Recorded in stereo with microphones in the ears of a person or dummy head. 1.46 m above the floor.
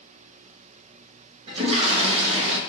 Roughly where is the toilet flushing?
Right.